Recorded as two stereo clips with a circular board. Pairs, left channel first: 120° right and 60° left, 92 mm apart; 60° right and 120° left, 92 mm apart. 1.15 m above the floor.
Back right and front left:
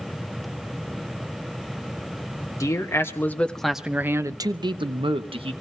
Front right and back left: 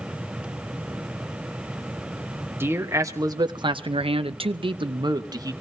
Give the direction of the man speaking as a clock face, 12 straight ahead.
6 o'clock.